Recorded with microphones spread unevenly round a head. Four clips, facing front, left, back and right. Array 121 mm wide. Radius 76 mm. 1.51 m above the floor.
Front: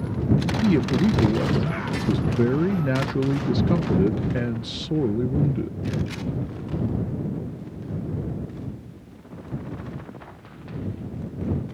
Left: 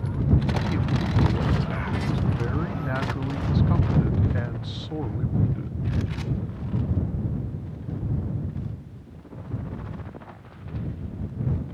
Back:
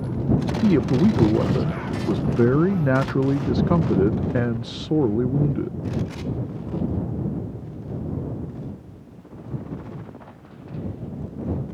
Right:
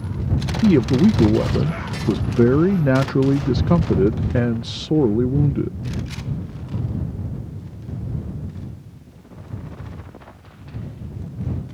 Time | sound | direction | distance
0.6 | a man speaking | 115° right | ?